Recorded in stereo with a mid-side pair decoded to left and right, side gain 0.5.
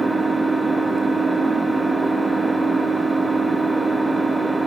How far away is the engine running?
About 1.0 m.